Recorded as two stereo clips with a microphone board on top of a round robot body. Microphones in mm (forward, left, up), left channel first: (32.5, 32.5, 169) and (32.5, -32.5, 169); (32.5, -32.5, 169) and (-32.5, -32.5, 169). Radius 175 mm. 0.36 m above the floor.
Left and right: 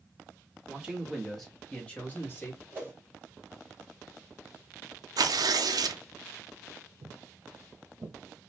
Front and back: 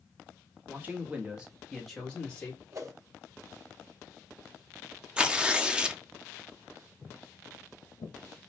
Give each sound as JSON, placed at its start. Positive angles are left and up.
{"t": 0.7, "sound": "a man speaking", "azimuth_deg": -150, "distance_m": 1.4}
{"t": 2.7, "sound": "a whoosh", "azimuth_deg": -145, "distance_m": 1.9}
{"t": 5.2, "sound": "tearing paper", "azimuth_deg": -105, "distance_m": 0.6}
{"t": 7.0, "sound": "footsteps", "azimuth_deg": -75, "distance_m": 0.6}